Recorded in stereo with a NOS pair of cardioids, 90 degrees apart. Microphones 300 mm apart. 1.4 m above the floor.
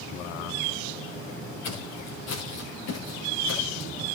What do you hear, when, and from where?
1.6 s footsteps: 60° left, 7.5 m